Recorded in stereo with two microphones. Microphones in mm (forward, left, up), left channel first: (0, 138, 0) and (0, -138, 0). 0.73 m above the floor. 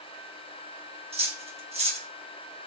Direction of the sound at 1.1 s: 20° right (ahead or behind).